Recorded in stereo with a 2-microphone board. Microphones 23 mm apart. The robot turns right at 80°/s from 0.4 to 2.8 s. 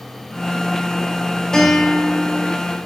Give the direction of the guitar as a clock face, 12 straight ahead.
7 o'clock.